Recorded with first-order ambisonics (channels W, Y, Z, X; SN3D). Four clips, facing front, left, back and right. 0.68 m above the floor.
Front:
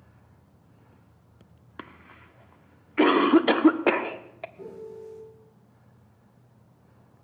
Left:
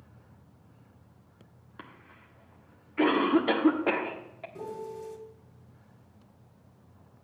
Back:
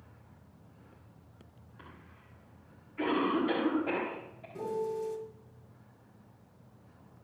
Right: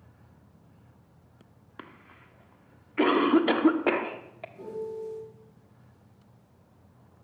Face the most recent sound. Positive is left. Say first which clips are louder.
# right 3 dB, back 6 dB
turn(degrees=145)